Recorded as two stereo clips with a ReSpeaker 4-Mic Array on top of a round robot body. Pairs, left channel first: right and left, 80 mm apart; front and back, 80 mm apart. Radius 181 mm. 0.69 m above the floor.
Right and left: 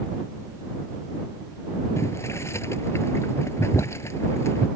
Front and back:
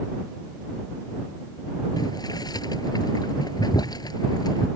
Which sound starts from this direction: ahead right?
Boiling, at 2.0 s.